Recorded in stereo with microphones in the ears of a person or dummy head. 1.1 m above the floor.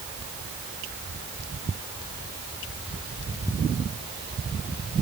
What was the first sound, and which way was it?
Only background noise.